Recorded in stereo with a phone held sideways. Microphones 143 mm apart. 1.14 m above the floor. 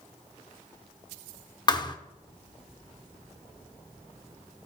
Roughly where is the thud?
Left.